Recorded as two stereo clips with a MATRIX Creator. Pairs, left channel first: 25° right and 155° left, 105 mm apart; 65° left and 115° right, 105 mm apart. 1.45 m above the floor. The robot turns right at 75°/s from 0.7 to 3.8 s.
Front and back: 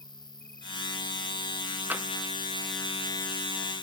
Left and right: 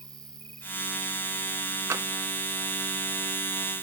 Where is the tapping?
145° right; by 2.1 s 135° right.